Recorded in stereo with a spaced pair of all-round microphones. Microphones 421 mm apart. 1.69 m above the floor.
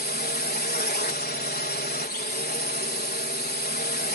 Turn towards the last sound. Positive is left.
turn(degrees=20)  # may be behind; listen again after turning